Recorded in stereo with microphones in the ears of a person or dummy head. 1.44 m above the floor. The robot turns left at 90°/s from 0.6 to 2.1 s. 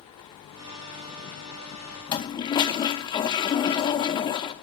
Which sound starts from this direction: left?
A toilet flushing, at 2.1 s.